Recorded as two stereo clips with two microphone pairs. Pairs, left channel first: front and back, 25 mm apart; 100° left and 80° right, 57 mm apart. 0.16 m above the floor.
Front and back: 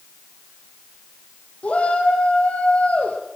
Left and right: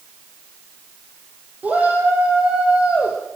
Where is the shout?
15° right, 5.5 m; by 3.2 s 5° right, 5 m.